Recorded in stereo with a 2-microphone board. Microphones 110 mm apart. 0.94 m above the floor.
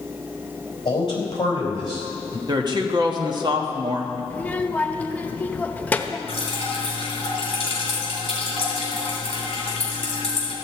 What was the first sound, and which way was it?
A man speaking, 45° left (ahead or behind).